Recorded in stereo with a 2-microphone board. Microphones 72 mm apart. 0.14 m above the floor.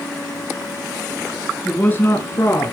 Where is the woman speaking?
20° left (ahead or behind), 1.7 m; by 2.7 s 50° left (ahead or behind), 2.5 m.